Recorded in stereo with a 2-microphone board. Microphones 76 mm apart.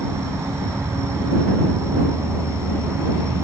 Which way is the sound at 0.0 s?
40° right (ahead or behind).